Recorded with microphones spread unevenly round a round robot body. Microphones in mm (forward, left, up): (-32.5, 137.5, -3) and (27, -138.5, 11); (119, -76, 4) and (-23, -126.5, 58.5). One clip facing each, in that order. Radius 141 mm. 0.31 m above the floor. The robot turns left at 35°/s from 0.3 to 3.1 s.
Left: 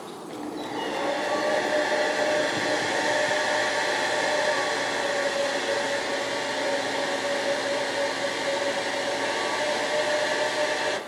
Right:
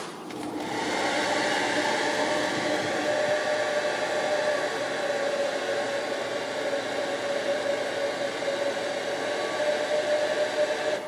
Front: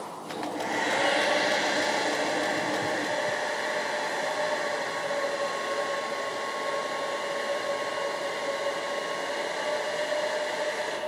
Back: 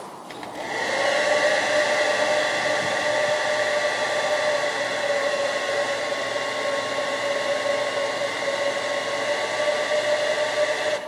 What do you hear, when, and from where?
0.3 s a hair dryer: 85° right, 2 m; by 11.0 s 175° left, 2 m